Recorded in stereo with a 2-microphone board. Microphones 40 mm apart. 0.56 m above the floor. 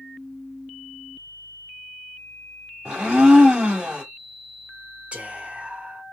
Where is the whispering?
30° right (ahead or behind), 1.2 m.